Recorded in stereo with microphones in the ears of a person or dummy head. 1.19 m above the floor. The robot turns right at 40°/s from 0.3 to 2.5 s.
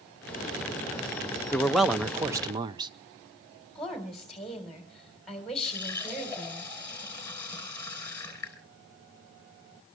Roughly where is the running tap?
Centre.